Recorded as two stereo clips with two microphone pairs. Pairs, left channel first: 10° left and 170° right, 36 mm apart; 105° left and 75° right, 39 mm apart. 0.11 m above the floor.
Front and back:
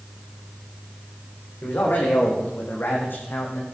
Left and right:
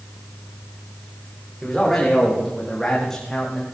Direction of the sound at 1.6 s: 25° left.